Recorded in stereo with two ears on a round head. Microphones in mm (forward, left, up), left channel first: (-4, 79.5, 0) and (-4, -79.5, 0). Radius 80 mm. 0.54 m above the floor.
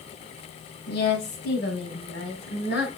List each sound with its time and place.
0.9 s a woman speaking: 60° left (ahead or behind), 4 m